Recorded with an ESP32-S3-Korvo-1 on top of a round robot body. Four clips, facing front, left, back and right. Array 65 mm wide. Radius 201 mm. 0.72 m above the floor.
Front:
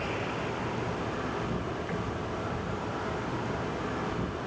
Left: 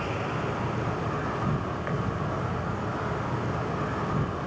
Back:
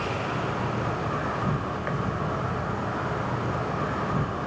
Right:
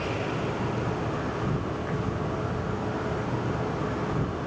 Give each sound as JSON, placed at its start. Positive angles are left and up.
{"t": 0.0, "sound": "an insect", "azimuth_deg": 145, "distance_m": 2.5}